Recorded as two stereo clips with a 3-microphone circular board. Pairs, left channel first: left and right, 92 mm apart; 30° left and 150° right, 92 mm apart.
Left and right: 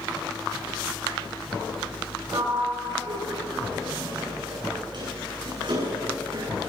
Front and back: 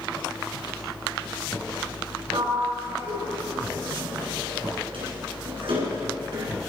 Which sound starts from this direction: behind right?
A sliding door, at 2.3 s.